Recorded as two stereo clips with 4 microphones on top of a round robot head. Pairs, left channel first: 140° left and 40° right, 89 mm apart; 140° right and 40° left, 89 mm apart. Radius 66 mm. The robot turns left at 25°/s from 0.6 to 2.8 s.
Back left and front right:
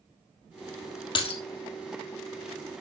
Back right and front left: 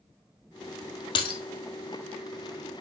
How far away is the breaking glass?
About 2 m.